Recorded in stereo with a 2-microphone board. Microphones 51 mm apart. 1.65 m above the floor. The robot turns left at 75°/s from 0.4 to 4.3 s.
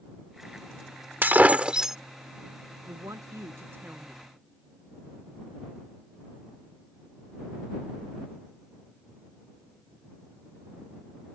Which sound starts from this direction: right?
A woman speaking, at 2.9 s.